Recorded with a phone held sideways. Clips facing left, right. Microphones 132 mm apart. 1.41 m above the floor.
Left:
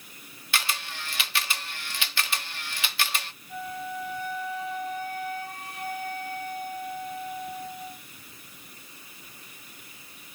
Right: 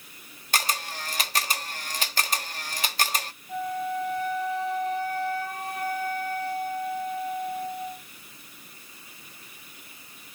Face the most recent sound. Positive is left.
turn(degrees=-45)  # may be behind; listen again after turning